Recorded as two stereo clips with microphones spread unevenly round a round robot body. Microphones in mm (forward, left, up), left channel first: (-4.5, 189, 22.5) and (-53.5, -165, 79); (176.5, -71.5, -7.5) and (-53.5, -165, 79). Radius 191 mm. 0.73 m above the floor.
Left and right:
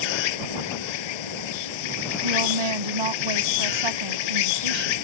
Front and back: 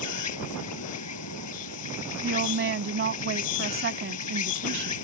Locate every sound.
0.0 s an insect: 65° left
2.2 s a woman speaking: 115° right